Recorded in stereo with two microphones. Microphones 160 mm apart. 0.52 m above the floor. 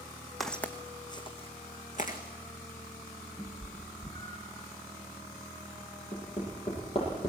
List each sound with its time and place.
0.4 s footsteps: centre (ahead or behind), 1.7 m; by 2.2 s 55° left (ahead or behind), 2.5 m
3.4 s a cat meowing: 25° left (ahead or behind), 3 m
6.1 s hammering: 35° left (ahead or behind), 9.5 m